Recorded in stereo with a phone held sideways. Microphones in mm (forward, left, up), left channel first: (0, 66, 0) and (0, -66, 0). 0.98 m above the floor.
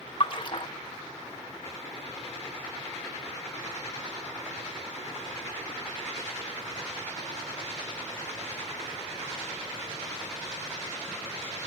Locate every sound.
0.2 s a splash: 40° left (ahead or behind), 1.5 m